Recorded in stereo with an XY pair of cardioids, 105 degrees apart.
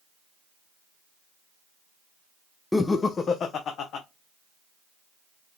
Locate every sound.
2.7 s laughter: 15° left, 0.5 m; by 4.0 s 70° left, 1.0 m